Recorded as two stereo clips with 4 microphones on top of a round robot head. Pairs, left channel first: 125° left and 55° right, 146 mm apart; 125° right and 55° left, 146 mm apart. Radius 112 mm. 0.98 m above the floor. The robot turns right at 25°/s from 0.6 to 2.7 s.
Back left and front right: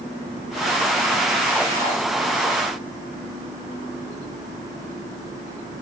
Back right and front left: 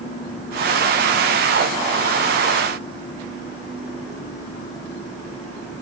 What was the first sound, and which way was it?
Only background noise.